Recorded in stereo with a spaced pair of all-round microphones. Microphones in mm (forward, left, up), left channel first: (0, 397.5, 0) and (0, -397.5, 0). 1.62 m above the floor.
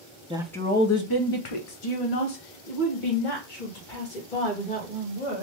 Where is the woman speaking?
10° right (ahead or behind), 0.6 m; by 5.4 s 80° left, 2.5 m.